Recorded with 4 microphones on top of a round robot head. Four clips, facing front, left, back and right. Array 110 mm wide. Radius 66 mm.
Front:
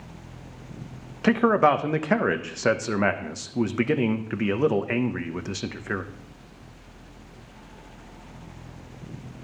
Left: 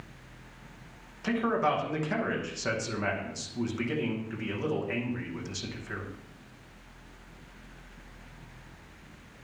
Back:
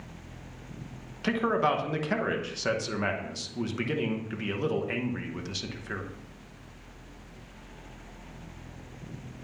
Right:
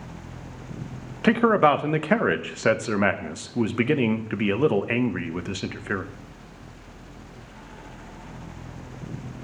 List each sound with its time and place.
1.2 s a man speaking: 55° right, 0.9 m